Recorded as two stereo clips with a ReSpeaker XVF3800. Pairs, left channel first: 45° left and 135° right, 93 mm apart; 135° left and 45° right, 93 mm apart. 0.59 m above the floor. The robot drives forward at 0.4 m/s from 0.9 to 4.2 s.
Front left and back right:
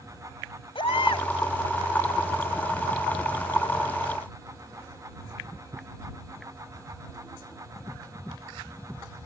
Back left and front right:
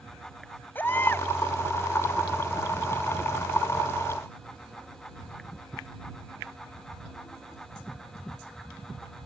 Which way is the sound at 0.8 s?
65° left.